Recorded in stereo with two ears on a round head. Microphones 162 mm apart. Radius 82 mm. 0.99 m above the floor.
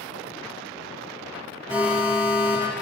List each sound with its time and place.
1.7 s an alarm: 10° right (ahead or behind), 2 m